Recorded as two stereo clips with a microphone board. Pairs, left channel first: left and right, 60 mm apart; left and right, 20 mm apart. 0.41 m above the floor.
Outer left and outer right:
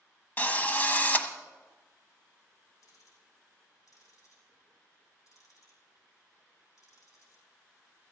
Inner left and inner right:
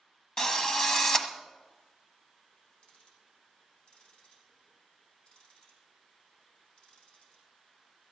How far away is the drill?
About 1.0 m.